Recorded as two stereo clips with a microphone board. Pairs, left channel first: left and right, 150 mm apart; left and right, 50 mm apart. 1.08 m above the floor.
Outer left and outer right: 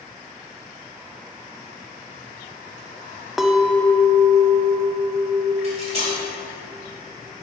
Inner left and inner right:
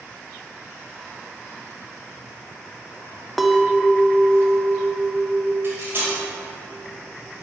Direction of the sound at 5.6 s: 45° right (ahead or behind).